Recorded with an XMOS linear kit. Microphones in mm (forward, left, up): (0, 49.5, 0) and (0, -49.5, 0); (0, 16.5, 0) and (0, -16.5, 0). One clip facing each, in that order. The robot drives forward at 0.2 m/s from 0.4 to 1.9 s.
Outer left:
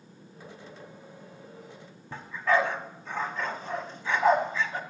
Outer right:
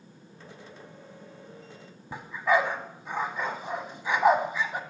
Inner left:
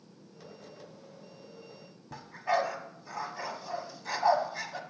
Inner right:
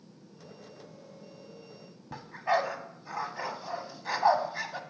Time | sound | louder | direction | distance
2.1 | a dog barking | outer right 1 dB, inner right 1 dB | 15° right (ahead or behind) | 1.0 m